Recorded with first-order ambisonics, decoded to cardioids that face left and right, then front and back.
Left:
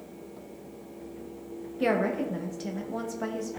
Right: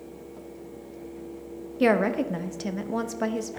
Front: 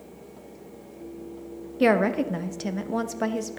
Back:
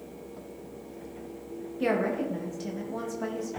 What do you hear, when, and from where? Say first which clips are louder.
1.8 s a woman speaking: right 4 dB, front 6 dB; 35° right, 0.5 m